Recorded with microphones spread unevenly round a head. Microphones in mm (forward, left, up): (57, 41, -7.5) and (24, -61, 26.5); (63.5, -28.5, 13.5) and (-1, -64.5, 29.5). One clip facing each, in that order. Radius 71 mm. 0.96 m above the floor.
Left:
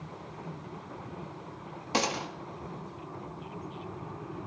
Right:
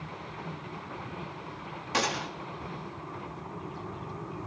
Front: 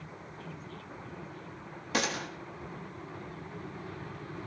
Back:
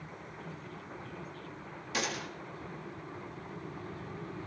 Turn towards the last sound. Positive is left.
turn(degrees=30)